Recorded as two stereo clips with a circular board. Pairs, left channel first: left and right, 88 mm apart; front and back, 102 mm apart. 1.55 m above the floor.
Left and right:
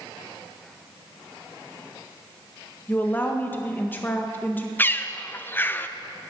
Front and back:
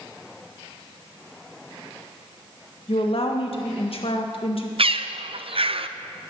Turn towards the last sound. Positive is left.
turn(degrees=155)